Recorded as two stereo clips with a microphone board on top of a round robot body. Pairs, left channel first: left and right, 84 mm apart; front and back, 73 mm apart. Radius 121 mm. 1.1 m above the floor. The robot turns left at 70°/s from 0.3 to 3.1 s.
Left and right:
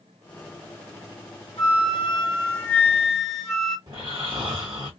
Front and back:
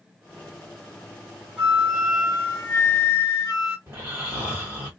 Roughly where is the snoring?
Behind right.